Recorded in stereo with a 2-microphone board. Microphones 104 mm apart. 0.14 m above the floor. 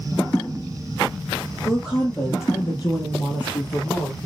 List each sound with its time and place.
1.6 s a woman speaking: 20° left (ahead or behind), 4.5 m; by 4.2 s 55° left (ahead or behind), 5 m